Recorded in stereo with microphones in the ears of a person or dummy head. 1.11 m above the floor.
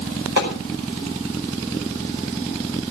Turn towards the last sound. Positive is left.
turn(degrees=-75)  # may be behind; listen again after turning